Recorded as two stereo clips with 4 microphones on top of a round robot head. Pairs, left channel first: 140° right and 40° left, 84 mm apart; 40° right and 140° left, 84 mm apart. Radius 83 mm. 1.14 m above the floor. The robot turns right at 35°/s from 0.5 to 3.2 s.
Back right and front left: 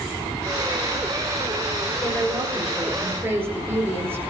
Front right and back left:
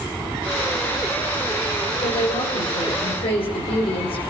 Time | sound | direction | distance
2.0 | a woman speaking | 65° right | 5.5 m